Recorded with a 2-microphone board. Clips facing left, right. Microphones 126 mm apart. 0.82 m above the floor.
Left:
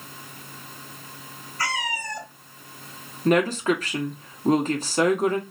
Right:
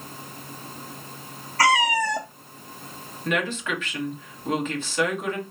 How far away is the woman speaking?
About 0.9 m.